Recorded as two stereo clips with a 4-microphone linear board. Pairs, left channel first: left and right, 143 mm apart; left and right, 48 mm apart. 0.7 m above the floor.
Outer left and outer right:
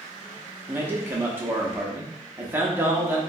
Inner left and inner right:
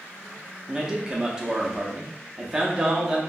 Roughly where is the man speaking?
Centre.